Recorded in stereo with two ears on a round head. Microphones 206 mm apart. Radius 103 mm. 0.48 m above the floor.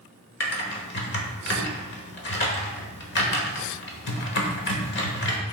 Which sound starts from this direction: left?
Typing on a keyboard, at 0.4 s.